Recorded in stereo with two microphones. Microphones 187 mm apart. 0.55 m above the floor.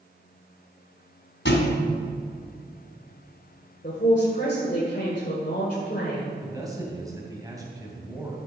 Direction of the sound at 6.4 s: 20° right (ahead or behind).